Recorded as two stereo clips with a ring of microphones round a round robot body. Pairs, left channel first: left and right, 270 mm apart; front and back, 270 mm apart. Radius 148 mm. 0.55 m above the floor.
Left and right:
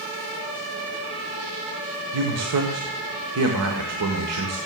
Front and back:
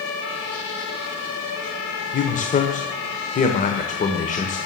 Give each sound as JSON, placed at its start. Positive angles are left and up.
{"t": 2.1, "sound": "a man speaking", "azimuth_deg": -60, "distance_m": 1.9}